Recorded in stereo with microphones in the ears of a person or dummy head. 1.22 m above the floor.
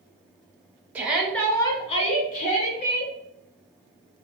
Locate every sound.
0.9 s a shout: 10° right (ahead or behind), 0.6 m; by 3.1 s 45° left (ahead or behind), 1.0 m